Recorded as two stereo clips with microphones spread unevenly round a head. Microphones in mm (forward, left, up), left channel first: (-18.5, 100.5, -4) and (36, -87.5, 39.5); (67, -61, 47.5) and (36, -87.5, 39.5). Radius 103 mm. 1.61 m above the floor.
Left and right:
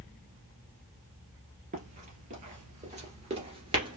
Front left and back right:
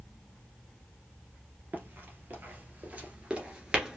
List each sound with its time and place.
1.7 s running footsteps: 100° right, 2.5 m; by 4.0 s 60° right, 1.8 m